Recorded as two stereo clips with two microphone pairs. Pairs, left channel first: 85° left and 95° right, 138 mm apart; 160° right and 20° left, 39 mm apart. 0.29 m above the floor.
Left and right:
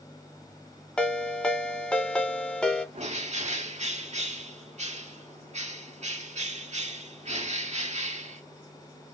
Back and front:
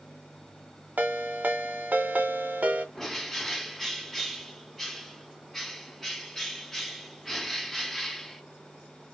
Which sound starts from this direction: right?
A bird, at 3.0 s.